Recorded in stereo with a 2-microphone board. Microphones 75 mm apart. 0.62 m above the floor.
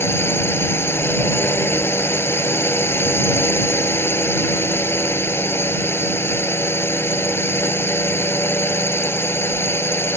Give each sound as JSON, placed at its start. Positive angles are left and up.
{"t": 0.0, "sound": "a drone", "side_deg": 30}